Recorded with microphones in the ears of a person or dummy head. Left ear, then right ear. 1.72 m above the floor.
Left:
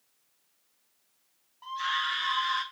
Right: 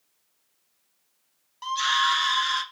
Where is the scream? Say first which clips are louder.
Right 7 dB; 70° right (ahead or behind), 0.7 m; by 2.6 s 80° right, 1.5 m.